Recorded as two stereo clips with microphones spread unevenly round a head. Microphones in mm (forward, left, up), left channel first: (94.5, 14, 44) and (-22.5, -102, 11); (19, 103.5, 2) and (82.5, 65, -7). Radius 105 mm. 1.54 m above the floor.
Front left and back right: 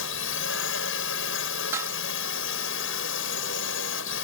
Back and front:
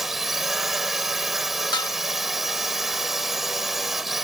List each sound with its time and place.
0.0 s a drone: 55° left
1.7 s dishes clattering: 140° left